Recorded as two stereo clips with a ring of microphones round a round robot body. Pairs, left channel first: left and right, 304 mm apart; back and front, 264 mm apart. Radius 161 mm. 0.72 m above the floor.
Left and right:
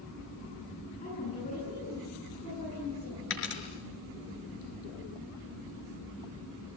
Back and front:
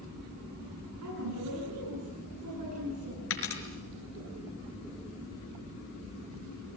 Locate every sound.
1.0 s a woman speaking: 20° left, 10 m
3.3 s a dropped coin: 145° left, 5 m